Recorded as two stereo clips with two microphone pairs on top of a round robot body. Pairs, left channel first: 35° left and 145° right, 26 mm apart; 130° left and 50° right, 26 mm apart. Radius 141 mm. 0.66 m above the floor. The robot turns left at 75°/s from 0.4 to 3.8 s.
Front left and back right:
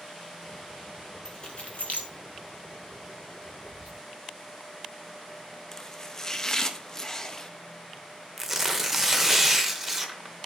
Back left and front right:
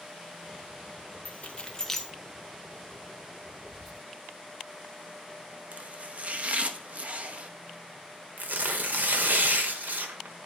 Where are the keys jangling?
105° left, 1.3 m; by 2.1 s 40° left, 1.3 m.